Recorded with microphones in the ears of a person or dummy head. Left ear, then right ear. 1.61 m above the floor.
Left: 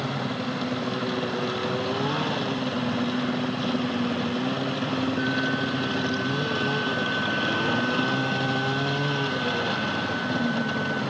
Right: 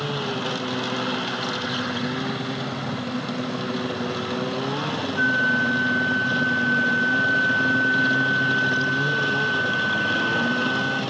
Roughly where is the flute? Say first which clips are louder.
Right 10 dB; right.